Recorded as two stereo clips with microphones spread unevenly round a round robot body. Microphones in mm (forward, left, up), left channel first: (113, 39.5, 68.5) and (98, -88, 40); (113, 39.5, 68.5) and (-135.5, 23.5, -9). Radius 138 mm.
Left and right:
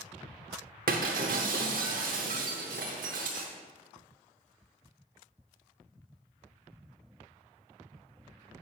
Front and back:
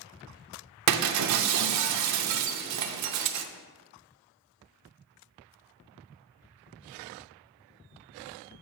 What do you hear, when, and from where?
0.9 s breaking glass: 140° right, 0.5 m